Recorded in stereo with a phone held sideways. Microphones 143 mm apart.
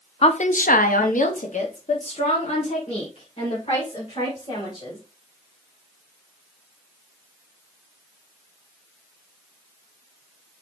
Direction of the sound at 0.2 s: 45° left (ahead or behind).